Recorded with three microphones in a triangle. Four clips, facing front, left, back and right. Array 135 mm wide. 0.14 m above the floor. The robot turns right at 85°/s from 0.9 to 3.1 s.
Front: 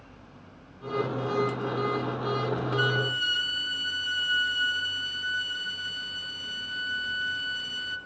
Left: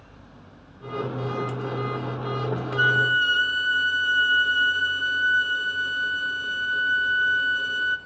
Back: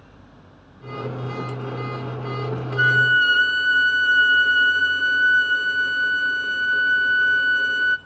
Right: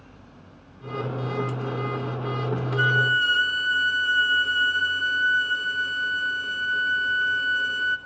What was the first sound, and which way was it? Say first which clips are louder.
A violin: left 1 dB, back 10 dB; 140° left.